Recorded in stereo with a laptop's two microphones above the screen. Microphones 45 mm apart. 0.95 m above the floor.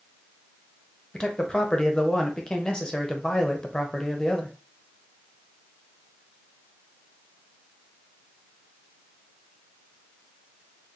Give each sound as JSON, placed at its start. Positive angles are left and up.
{"t": 1.1, "sound": "a man speaking", "side_deg": 20, "distance_m": 0.6}